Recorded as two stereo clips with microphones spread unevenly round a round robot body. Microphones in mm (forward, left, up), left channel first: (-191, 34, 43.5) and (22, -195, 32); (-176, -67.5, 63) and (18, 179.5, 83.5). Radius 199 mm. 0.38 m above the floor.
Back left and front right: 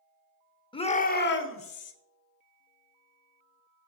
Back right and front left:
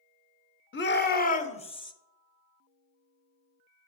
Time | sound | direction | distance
0.7 | a shout | 155° right | 1.1 m